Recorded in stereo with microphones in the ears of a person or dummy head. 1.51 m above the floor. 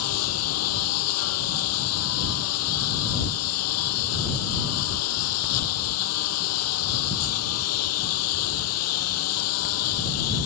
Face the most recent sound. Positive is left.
turn(degrees=80)